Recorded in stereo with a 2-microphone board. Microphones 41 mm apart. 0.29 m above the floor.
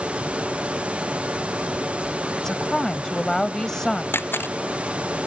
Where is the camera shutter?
65° left (ahead or behind).